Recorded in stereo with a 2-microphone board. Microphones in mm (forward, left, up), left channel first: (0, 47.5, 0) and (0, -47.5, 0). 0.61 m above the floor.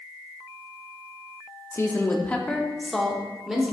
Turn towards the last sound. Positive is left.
turn(degrees=-5)  # may be behind; listen again after turning